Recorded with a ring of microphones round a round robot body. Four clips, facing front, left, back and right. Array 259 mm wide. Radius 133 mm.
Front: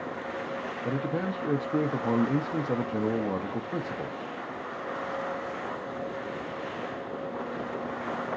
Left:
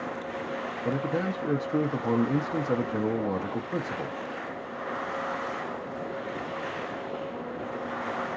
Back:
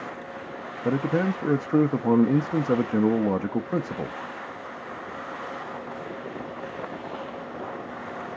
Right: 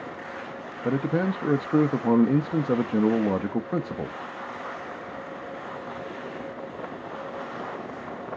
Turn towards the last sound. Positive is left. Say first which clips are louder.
# right 5 dB, back 7 dB
turn(degrees=-140)